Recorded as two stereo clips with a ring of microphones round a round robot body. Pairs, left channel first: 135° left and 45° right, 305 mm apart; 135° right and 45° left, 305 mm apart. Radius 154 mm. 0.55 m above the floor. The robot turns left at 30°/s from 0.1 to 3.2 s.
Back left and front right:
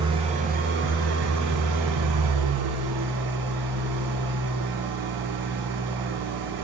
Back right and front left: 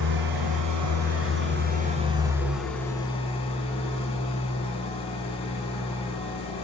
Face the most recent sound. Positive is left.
turn(degrees=-65)